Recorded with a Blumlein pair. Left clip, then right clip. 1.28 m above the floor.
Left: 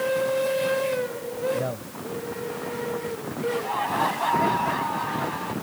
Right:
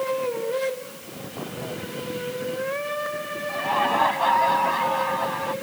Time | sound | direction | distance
1.5 | a man speaking | 30° left | ?
3.5 | laughter | 10° right | ?